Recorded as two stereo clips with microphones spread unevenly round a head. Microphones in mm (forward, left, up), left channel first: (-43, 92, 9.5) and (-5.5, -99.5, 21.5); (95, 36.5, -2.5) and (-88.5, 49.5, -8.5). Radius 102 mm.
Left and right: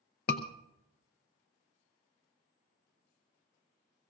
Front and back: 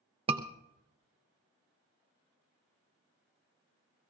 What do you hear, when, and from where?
0.3 s a scream: 125° left, 0.6 m